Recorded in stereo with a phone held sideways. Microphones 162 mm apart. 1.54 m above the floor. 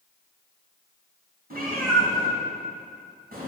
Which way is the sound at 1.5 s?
65° right (ahead or behind).